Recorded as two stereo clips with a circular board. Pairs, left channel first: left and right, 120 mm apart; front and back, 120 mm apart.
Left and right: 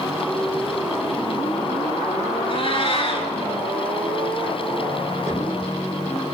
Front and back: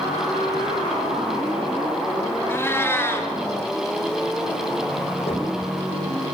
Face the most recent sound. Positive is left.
turn(degrees=-30)